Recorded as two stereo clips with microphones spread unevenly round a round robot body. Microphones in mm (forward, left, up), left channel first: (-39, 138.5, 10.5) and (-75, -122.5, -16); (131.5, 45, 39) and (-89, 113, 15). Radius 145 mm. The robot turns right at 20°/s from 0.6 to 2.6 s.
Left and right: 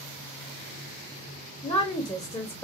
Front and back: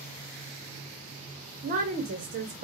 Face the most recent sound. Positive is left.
turn(degrees=165)